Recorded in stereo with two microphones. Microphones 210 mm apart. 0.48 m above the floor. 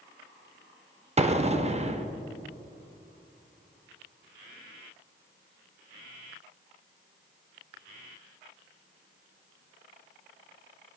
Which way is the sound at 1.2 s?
30° right (ahead or behind).